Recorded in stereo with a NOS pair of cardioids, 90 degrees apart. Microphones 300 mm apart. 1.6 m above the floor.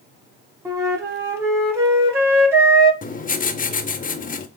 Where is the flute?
10° right, 1.2 m.